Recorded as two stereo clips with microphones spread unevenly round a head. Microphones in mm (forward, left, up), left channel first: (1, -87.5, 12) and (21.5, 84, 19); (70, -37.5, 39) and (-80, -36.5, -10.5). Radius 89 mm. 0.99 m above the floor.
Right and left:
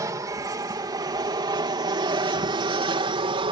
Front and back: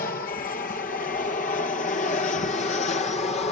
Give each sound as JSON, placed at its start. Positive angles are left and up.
{"t": 0.0, "sound": "an aircraft", "azimuth_deg": 20}